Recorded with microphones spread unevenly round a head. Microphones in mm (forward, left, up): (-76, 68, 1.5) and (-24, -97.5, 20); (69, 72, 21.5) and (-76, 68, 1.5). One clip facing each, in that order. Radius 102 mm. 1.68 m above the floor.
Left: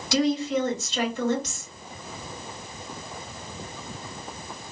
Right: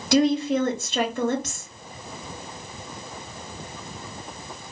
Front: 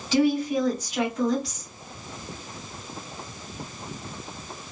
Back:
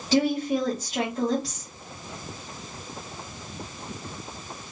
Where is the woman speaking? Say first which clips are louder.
Right 4 dB, front 1 dB; 110° right, 1.3 m.